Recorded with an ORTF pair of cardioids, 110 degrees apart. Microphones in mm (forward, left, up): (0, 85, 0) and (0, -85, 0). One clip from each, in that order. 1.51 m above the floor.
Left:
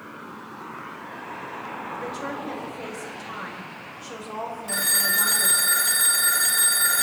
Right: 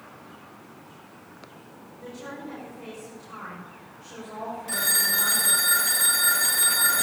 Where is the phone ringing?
10° left, 1.6 m.